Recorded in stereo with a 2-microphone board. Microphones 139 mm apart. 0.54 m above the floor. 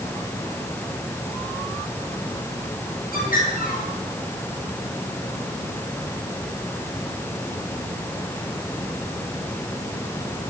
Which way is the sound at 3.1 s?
85° left.